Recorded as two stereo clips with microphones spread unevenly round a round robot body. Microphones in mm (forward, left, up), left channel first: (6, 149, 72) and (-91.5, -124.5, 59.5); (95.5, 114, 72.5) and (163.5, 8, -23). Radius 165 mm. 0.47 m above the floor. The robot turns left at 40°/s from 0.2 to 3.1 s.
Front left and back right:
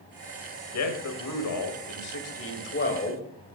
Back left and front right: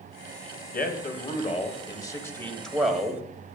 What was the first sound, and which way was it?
A man speaking, 95° left.